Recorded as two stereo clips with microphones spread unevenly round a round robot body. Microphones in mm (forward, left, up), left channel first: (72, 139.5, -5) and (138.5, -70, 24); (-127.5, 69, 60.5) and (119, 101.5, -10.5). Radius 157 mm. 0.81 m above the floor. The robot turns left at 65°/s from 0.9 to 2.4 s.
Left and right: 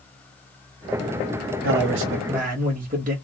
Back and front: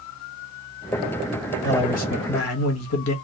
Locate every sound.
1.6 s a man speaking: 85° right, 0.7 m; by 3.1 s 130° right, 0.7 m